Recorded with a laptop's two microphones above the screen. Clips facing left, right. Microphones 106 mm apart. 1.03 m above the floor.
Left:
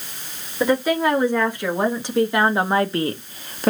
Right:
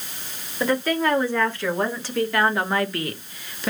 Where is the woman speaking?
10° left (ahead or behind), 2.5 m; by 3.7 s 45° left (ahead or behind), 0.6 m.